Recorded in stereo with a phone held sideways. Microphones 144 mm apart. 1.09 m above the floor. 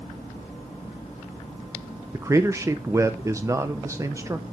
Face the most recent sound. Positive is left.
turn(degrees=-20)  # may be behind; listen again after turning